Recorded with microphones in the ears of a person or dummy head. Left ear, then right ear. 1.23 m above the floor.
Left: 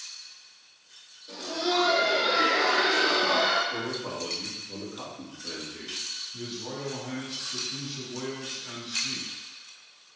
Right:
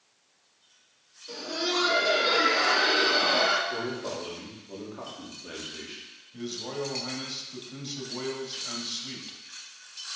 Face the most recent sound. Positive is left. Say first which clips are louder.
# right 2 dB
turn(degrees=-40)  # may be behind; listen again after turning